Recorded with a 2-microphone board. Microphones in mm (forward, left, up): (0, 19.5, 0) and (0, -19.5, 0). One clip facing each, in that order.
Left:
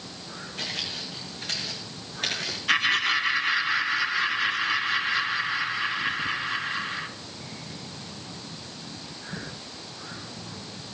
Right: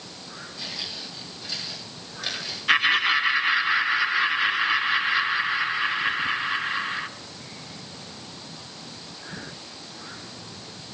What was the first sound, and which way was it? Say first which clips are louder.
Footsteps: left 3 dB; 55° left (ahead or behind).